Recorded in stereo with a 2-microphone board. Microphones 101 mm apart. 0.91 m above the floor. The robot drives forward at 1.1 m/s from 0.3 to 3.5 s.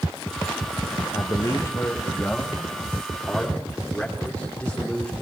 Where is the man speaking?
35° left (ahead or behind), 0.8 m; by 5.1 s 10° left (ahead or behind), 3 m.